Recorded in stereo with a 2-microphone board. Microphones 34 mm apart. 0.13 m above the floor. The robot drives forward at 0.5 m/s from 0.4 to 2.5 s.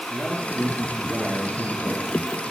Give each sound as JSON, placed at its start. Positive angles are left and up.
{"t": 0.1, "sound": "a man speaking", "side_deg": -35, "distance_m": 2.5}